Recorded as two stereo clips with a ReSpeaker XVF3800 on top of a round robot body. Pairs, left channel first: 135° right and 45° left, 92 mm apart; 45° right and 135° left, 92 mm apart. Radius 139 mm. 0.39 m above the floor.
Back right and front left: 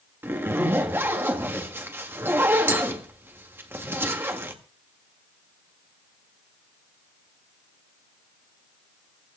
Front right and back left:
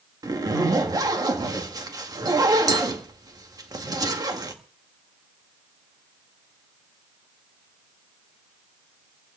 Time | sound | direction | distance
0.2 | a zipper | 105° left | 1.9 m